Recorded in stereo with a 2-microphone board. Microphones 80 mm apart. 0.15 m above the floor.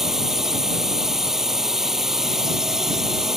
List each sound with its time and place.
0.0 s a drone: 5° right (ahead or behind)